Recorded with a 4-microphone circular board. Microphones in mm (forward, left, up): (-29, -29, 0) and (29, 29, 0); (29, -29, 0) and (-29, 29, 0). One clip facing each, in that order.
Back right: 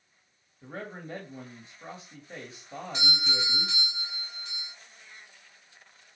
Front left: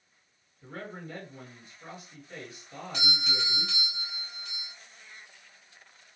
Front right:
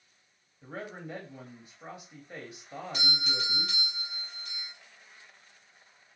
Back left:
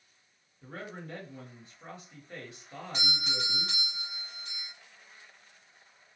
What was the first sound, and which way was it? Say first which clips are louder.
A man speaking: back right 1 dB, front right 2 dB; 110° right.